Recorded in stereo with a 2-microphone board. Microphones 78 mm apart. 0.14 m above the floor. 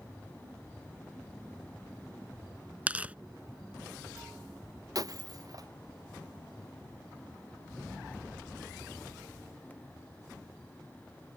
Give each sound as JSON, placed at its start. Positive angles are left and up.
{"t": 2.9, "sound": "tearing paper", "side_deg": -20}
{"t": 5.0, "sound": "breaking glass", "side_deg": -50}